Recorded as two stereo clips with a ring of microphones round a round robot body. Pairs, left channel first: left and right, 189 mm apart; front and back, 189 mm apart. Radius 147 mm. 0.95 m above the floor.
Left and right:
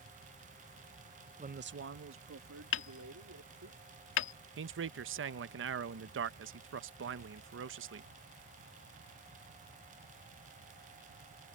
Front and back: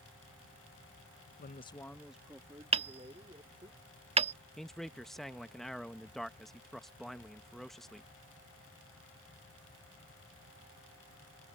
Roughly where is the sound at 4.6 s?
Right.